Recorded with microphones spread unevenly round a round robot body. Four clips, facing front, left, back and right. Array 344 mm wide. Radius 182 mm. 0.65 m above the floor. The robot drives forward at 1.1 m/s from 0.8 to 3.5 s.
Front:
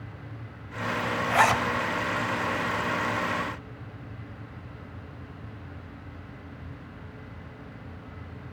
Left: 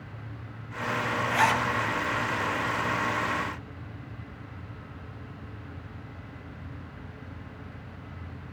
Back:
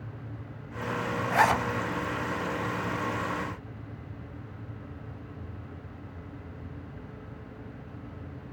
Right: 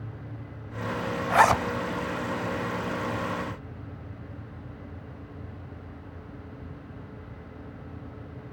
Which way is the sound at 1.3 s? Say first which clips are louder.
Right 5 dB, front 1 dB; 60° right.